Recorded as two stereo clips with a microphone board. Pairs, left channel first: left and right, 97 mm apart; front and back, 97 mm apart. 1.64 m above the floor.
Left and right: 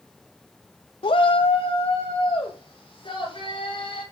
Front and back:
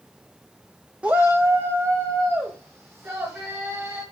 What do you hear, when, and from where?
1.0 s a shout: 100° left, 0.5 m; by 4.0 s 120° left, 5 m